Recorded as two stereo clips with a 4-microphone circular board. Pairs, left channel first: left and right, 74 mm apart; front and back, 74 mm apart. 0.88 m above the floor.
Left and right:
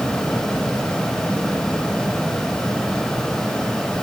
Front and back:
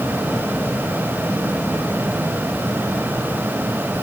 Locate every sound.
Only background noise.